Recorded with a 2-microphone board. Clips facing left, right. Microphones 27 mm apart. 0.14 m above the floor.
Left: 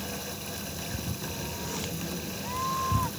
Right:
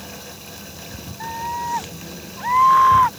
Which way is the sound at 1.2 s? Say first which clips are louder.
Right 10 dB; 65° right (ahead or behind).